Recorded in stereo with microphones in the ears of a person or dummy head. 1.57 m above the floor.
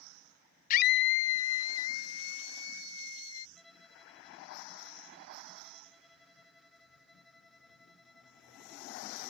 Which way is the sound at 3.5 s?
Centre (ahead or behind).